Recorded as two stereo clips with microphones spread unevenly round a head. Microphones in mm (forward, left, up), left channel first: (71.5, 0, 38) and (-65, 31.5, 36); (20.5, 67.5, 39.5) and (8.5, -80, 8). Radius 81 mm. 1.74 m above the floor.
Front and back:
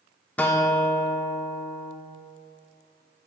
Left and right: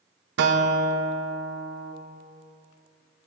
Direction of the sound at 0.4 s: 95° right.